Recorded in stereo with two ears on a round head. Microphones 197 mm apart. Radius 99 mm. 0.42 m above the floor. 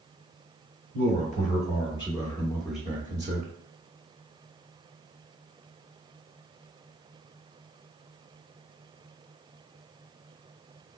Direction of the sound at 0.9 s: 40° left (ahead or behind).